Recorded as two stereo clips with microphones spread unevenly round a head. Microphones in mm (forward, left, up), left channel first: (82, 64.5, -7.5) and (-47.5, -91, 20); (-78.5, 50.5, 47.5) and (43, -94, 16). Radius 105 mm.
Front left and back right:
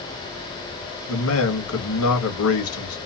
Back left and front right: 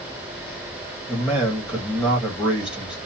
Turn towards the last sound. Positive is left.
turn(degrees=35)